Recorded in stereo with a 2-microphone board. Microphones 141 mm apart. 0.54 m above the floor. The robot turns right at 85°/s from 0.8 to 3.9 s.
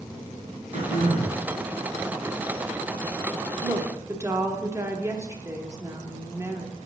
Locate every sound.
0.7 s throat clearing: 85° right, 2.5 m; by 1.4 s 35° right, 2.5 m
3.6 s a woman speaking: 30° right (ahead or behind), 0.8 m; by 6.8 s 20° right (ahead or behind), 0.8 m